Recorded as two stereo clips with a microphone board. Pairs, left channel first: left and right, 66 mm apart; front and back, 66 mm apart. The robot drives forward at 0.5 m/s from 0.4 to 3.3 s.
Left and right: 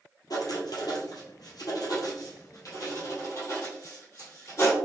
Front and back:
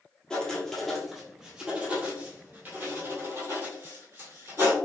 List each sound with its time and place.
0.3 s writing: 80° left, 1.3 m; by 4.8 s 135° left, 1.8 m